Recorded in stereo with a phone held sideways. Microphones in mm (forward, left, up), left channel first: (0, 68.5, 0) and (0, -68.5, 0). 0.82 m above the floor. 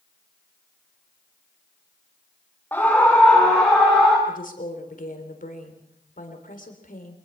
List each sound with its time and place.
2.7 s a scream: 15° left (ahead or behind), 1.9 m; by 4.2 s 5° left (ahead or behind), 4 m
4.3 s a woman speaking: 70° left (ahead or behind), 3.5 m